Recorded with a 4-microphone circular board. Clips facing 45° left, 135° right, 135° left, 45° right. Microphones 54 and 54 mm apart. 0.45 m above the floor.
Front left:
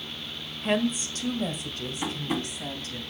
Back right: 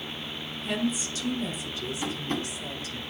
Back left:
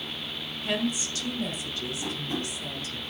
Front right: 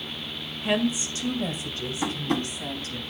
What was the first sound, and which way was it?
A woman speaking, 20° left.